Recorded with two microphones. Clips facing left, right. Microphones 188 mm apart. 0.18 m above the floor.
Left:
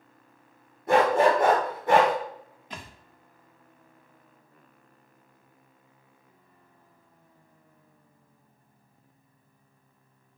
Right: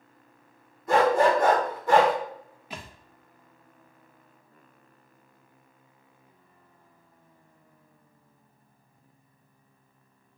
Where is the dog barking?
80° left, 1.8 m.